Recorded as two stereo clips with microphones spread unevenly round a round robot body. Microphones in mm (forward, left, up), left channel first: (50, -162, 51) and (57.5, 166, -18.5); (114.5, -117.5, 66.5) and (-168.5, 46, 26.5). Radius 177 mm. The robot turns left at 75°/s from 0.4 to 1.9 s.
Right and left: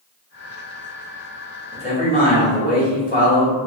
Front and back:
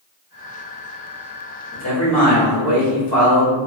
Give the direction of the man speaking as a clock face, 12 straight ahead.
12 o'clock.